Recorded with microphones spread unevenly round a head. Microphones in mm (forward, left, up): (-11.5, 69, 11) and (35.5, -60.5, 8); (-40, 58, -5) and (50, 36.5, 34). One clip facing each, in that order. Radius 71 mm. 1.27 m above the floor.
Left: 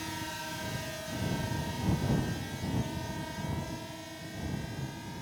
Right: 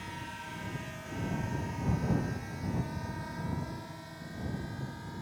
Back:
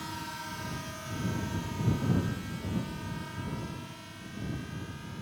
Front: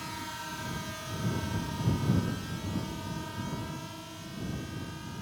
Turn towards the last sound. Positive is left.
turn(degrees=45)